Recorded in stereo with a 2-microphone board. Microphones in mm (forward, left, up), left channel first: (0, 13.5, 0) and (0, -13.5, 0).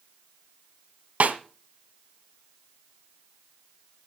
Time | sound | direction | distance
1.2 | a snare drum | 70° right (ahead or behind) | 1.8 m